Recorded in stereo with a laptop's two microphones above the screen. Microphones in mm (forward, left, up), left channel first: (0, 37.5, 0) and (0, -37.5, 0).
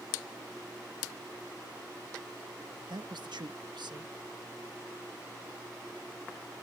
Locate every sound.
2.9 s a man speaking: 75° right (ahead or behind)